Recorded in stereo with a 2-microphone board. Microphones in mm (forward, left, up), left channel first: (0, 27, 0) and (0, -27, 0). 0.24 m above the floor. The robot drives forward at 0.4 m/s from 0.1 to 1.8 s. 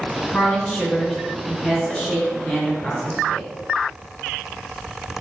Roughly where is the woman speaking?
Left.